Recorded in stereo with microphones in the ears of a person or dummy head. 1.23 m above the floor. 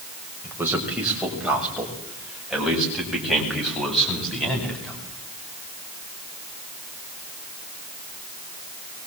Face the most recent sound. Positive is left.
turn(degrees=5)  # may be behind; listen again after turning